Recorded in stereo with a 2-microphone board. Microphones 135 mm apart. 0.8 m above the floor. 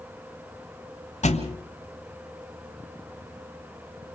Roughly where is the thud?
Left.